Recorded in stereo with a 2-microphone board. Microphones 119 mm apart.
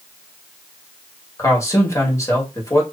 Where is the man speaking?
25° left (ahead or behind), 1.6 m.